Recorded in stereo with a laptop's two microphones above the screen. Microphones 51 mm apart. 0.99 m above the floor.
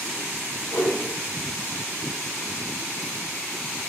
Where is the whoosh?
50° left (ahead or behind), 1.2 m.